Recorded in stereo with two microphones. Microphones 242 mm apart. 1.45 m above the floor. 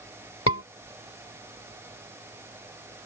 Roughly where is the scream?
Left.